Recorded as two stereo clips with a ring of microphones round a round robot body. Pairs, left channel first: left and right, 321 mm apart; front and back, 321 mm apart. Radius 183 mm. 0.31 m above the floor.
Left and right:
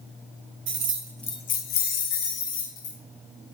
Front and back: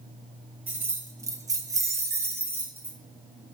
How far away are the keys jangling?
About 0.6 m.